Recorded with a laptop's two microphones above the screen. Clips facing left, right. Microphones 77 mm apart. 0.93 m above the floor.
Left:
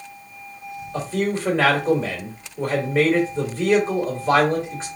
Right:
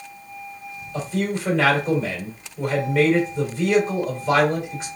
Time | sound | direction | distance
0.9 | a man speaking | 35° left (ahead or behind) | 2.5 m